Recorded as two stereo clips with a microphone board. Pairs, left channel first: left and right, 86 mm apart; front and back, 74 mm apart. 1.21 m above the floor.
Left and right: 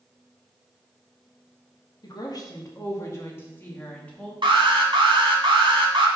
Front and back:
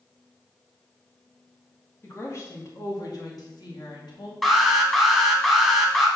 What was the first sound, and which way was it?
A woman speaking, 50° left.